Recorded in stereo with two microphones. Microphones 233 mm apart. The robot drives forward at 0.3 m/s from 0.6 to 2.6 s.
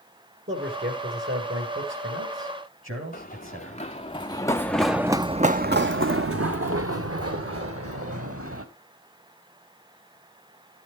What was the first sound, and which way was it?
A man speaking, 60° right (ahead or behind).